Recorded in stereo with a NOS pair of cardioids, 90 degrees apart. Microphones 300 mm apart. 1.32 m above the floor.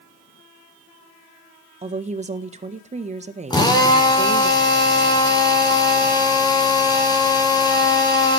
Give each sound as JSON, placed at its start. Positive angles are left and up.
{"t": 1.8, "sound": "a woman speaking", "azimuth_deg": -25, "distance_m": 1.5}
{"t": 3.5, "sound": "a drill", "azimuth_deg": 15, "distance_m": 3.5}